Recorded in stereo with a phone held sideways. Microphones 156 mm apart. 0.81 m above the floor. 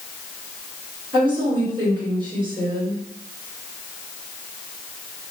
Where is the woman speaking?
30° right (ahead or behind), 2.0 m.